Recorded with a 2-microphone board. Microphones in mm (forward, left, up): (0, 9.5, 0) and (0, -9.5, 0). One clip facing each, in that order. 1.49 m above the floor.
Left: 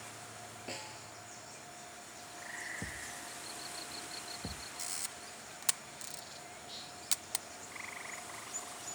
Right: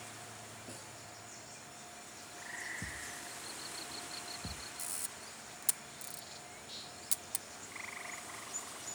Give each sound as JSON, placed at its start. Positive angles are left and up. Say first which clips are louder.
{"t": 0.7, "sound": "a snare drum", "louder": "left 5 dB", "side_deg": 40}
{"t": 2.8, "sound": "a thud", "louder": "even", "side_deg": 55}
{"t": 4.8, "sound": "a camera shutter", "louder": "left 2 dB", "side_deg": 40}